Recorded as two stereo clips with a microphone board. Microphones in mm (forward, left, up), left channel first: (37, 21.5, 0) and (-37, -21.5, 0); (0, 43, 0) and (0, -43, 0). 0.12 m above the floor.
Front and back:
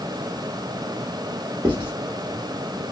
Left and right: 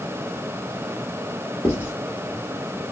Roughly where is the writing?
Behind left.